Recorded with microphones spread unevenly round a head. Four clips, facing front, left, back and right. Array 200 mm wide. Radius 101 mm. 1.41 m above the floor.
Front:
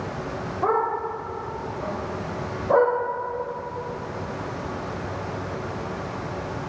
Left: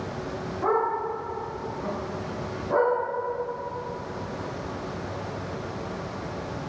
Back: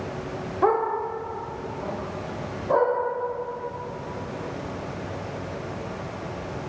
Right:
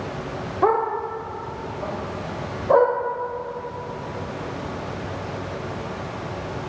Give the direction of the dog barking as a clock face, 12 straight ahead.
4 o'clock.